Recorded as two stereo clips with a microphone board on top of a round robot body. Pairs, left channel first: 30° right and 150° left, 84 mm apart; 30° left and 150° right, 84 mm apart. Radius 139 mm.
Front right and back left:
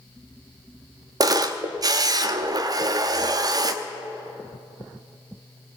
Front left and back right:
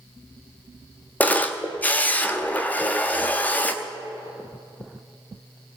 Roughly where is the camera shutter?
Left.